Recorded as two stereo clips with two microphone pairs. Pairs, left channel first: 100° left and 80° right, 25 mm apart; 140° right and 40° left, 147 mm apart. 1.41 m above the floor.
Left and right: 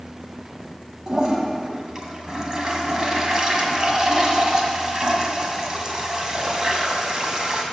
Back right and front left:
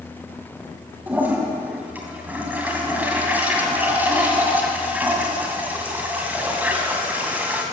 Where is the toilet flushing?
35° right, 1.9 m.